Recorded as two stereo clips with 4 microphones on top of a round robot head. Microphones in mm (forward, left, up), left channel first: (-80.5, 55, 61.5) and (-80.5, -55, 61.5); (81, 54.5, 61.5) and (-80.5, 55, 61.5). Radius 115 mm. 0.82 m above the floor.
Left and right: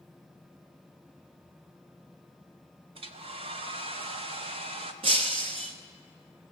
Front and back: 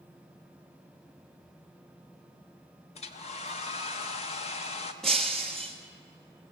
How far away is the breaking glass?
About 1.0 m.